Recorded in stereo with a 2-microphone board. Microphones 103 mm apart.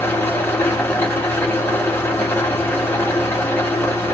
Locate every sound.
0.0 s an engine running: 20° left (ahead or behind), 1.1 m